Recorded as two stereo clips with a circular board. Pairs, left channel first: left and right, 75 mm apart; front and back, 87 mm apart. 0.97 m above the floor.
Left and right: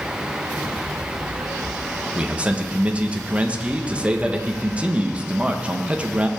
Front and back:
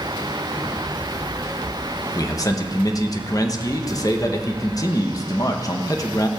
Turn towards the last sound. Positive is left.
turn(degrees=-20)